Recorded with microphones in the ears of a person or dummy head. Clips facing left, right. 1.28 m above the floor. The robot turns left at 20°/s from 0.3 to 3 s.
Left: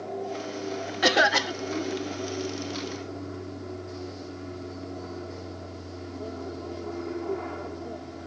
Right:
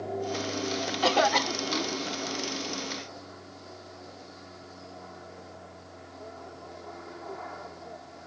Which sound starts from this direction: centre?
A cough, at 1.0 s.